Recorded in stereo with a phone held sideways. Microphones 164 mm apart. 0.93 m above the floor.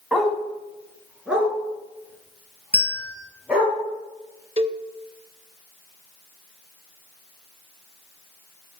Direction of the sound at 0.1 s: 5° right (ahead or behind).